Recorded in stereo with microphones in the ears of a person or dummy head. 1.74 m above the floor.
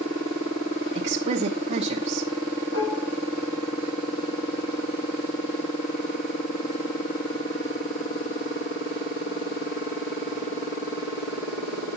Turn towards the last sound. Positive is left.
turn(degrees=70)  # may be behind; listen again after turning